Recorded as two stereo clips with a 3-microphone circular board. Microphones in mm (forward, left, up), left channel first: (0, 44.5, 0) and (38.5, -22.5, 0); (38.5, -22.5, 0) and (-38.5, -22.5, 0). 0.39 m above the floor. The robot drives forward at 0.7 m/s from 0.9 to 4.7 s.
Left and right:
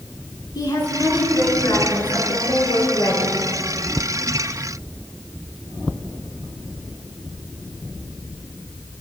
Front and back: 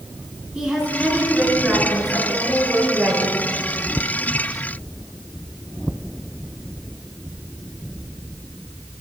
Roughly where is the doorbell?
I don't hear a doorbell.